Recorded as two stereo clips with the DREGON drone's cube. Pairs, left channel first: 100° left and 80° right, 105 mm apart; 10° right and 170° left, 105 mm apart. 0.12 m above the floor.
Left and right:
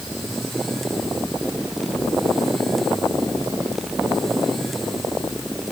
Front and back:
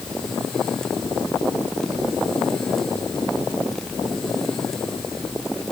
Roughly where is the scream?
No scream in this recording.